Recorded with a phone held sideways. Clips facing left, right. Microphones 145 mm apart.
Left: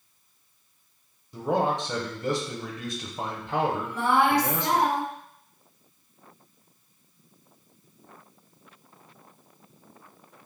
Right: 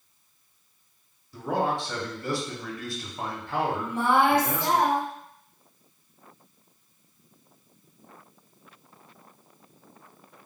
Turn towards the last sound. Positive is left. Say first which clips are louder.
# right 3 dB
turn(degrees=-25)  # may be behind; listen again after turning